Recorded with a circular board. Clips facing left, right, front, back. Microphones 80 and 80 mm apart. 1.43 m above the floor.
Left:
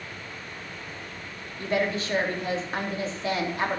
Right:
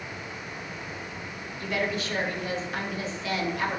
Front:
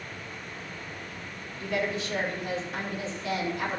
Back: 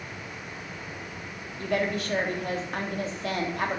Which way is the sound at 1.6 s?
145° left.